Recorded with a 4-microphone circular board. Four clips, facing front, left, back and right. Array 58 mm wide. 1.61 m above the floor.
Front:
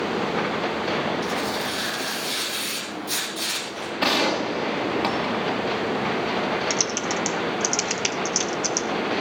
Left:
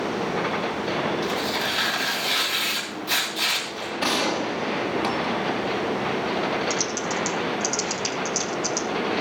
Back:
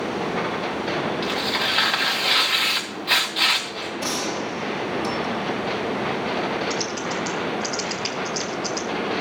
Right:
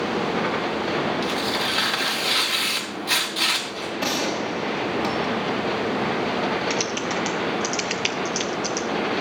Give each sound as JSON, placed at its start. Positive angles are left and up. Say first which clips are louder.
{"t": 1.2, "sound": "tearing paper", "louder": "right 1 dB, back 2 dB", "azimuth_deg": -170, "distance_m": 3.0}
{"t": 4.0, "sound": "a gunshot", "louder": "left 2 dB, front 6 dB", "azimuth_deg": 5, "distance_m": 1.9}
{"t": 6.7, "sound": "typing on a keyboard", "louder": "right 1 dB, even", "azimuth_deg": -75, "distance_m": 0.9}